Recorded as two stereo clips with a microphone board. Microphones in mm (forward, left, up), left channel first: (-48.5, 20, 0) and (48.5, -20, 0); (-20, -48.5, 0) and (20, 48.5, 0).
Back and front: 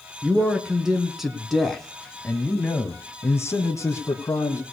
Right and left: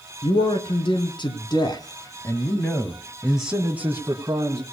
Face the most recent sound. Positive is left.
turn(degrees=110)